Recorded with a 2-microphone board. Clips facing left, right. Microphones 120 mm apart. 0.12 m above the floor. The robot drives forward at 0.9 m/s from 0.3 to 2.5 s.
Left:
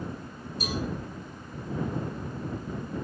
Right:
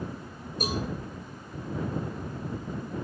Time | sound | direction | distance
0.6 | a cowbell | 50° right (ahead or behind) | 9.5 m